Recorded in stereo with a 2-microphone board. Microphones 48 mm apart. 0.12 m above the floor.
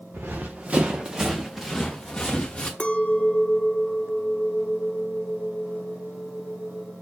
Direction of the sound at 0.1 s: 45° right (ahead or behind).